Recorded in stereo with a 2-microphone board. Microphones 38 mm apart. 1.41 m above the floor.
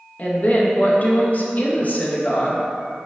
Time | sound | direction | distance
0.2 | a woman speaking | 40° left (ahead or behind) | 0.6 m